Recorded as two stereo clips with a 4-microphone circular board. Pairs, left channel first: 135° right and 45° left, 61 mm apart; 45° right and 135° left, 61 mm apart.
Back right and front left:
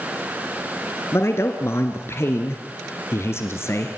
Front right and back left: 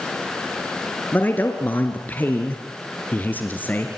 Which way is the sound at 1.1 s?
100° right.